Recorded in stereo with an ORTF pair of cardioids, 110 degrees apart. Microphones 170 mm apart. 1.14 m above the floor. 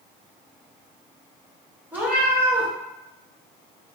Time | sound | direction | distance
1.9 | a cat meowing | 10° right | 1.1 m